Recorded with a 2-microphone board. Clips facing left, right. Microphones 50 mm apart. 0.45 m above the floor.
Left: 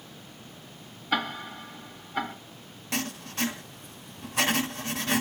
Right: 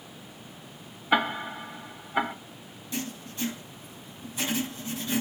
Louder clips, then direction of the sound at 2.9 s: Left 3 dB; 70° left (ahead or behind).